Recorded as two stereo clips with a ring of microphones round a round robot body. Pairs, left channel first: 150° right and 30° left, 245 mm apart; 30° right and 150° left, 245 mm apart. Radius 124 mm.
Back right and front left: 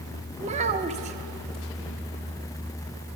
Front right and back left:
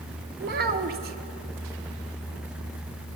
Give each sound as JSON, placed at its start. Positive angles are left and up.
{"t": 0.4, "sound": "a child speaking", "azimuth_deg": 95, "distance_m": 0.6}